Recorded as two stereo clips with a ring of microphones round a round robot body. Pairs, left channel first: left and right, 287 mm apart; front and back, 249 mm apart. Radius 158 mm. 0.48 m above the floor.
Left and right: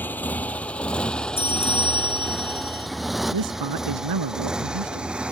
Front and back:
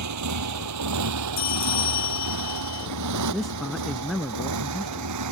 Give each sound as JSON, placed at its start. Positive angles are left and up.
{"t": 0.0, "sound": "a motorcycle", "azimuth_deg": 175}
{"t": 1.4, "sound": "a bell", "azimuth_deg": 10}
{"t": 3.3, "sound": "a man speaking", "azimuth_deg": -90}